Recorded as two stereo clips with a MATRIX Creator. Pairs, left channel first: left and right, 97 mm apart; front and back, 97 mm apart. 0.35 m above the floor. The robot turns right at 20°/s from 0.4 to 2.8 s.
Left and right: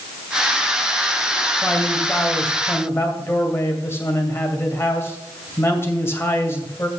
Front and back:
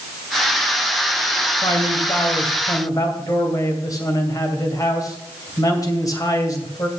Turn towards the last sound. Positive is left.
turn(degrees=35)